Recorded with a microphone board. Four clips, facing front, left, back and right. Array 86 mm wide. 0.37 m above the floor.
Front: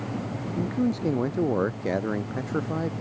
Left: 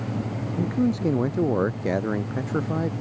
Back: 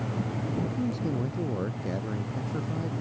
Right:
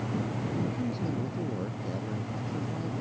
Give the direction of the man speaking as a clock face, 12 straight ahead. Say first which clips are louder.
Left 12 dB, front 7 dB; 10 o'clock.